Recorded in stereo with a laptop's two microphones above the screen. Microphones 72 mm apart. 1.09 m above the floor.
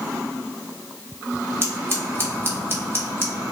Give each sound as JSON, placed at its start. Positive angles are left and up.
{"t": 1.6, "sound": "scissors", "side_deg": -35, "distance_m": 1.7}